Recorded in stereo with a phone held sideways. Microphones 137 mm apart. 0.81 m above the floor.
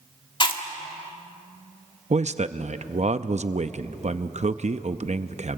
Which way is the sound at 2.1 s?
55° right (ahead or behind).